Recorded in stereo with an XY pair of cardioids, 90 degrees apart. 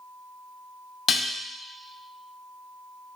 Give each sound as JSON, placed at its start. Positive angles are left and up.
{"t": 1.1, "sound": "dishes clattering", "azimuth_deg": 60, "distance_m": 0.7}